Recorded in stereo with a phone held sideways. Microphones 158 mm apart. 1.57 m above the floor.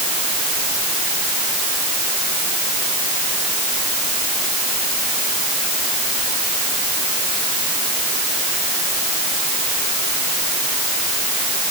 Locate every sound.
Only background noise.